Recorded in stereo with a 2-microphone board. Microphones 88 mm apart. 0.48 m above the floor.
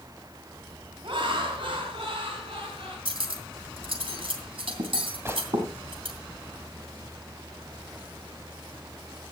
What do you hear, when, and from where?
1.0 s laughter: 70° right (ahead or behind), 2.5 m; by 3.0 s 75° right (ahead or behind), 5 m
3.0 s cutlery clinking: 75° right (ahead or behind), 2.5 m
5.2 s a gunshot: 30° right (ahead or behind), 1.6 m